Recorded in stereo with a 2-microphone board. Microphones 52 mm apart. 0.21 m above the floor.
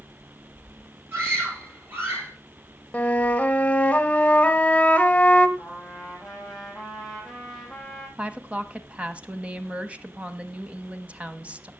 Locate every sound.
1.1 s a scream: 50° right (ahead or behind), 5.5 m; by 2.3 s 45° right (ahead or behind), 5 m
2.9 s a flute: 25° left (ahead or behind), 1.1 m
5.6 s a trumpet: centre (ahead or behind), 4 m
8.2 s a woman speaking: 25° right (ahead or behind), 1.1 m